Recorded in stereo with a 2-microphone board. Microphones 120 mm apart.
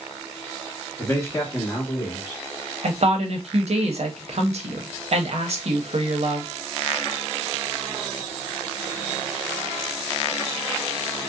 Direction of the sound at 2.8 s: 60° right (ahead or behind).